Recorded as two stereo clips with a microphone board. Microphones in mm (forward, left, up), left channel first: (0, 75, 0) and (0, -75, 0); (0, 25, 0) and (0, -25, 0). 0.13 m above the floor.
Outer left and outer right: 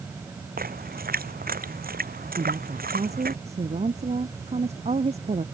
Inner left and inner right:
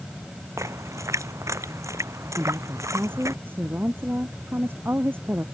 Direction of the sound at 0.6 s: 80° right.